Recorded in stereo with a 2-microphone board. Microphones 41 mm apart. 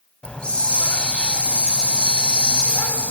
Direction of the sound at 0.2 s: 20° left (ahead or behind).